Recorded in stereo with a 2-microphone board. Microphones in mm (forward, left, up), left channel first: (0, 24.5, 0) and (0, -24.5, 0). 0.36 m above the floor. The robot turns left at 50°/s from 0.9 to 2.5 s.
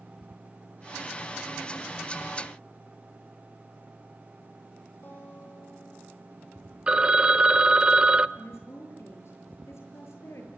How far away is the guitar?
About 8.5 m.